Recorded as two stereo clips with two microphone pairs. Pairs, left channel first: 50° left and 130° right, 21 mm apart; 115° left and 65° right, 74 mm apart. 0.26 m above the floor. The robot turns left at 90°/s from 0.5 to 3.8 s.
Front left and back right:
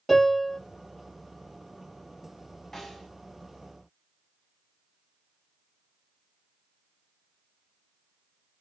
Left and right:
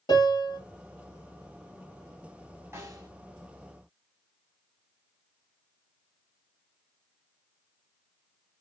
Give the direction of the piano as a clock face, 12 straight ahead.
7 o'clock.